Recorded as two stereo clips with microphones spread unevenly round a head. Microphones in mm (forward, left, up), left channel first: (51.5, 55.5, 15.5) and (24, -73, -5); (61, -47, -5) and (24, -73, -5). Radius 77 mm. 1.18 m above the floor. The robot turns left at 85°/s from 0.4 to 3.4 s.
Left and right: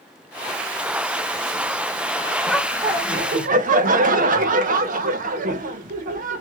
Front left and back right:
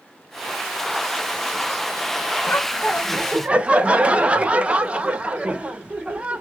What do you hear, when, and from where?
2.5 s laughter: straight ahead, 0.6 m; by 6.4 s 80° right, 0.6 m